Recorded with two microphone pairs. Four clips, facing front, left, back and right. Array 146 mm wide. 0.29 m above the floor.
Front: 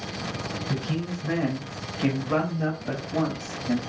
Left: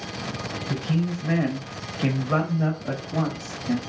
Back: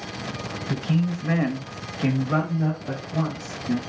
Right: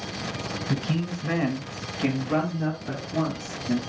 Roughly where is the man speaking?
Behind right.